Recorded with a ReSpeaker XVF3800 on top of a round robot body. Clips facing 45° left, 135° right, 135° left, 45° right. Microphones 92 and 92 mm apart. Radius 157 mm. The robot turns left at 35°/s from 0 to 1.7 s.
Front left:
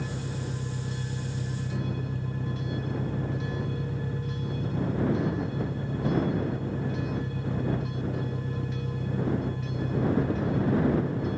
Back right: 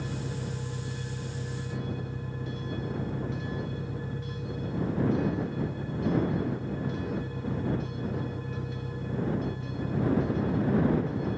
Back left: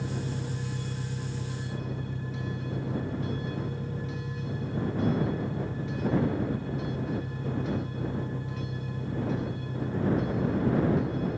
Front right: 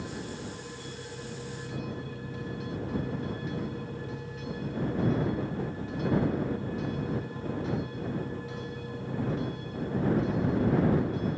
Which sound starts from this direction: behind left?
An engine running, at 0.0 s.